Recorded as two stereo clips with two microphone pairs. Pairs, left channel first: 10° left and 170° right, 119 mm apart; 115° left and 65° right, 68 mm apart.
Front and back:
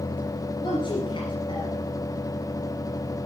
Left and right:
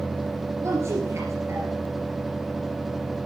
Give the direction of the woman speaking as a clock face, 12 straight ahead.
1 o'clock.